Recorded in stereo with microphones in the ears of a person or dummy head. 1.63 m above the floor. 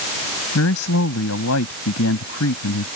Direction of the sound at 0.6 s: 85° left.